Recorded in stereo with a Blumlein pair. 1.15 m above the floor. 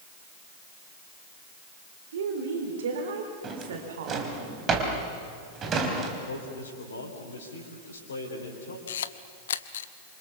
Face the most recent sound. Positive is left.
turn(degrees=60)